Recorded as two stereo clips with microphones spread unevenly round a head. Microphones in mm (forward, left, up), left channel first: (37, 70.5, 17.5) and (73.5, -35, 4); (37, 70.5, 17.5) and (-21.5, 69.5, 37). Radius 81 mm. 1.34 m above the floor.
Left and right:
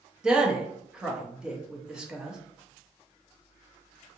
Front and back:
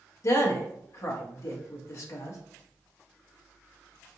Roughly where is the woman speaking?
Ahead.